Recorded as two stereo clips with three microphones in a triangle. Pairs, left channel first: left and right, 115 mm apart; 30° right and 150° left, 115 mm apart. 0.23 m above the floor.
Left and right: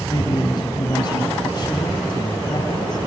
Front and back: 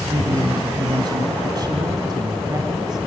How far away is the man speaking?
About 2 m.